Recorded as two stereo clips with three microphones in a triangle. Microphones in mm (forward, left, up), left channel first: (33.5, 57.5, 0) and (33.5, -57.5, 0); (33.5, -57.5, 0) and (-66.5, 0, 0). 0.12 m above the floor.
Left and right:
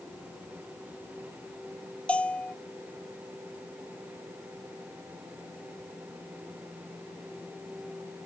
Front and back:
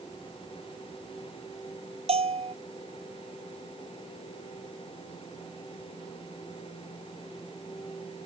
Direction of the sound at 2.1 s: 170° left.